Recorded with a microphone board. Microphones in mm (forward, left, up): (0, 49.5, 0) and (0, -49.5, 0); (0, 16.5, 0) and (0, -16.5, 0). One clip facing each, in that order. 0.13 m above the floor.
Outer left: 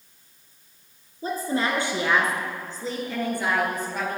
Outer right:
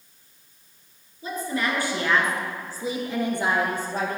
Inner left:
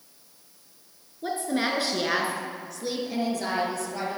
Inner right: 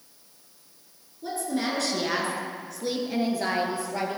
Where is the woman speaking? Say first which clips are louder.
Outer left 2 dB, inner left 2 dB; 40° left (ahead or behind), 1.8 m; by 4.2 s 35° right (ahead or behind), 2.5 m.